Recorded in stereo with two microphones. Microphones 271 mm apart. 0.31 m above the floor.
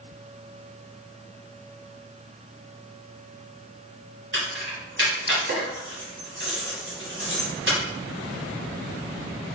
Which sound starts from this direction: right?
Keys jangling, at 4.3 s.